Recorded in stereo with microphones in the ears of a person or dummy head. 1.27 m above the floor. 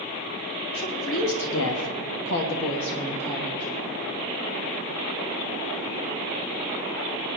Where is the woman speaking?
60° left (ahead or behind), 2.5 m; by 3.7 s 5° left (ahead or behind), 2 m.